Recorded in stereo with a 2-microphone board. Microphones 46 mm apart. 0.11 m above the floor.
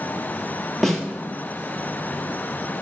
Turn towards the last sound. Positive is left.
turn(degrees=10)  # may be behind; listen again after turning